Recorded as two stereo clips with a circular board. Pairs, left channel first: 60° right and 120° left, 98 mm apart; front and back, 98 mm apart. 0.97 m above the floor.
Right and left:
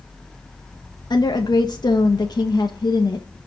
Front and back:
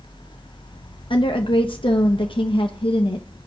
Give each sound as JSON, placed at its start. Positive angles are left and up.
{"t": 1.1, "sound": "a woman speaking", "azimuth_deg": -20, "distance_m": 0.7}